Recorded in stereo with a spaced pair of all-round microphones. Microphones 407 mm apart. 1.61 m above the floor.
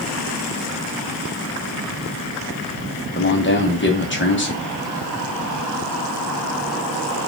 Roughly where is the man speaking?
Left.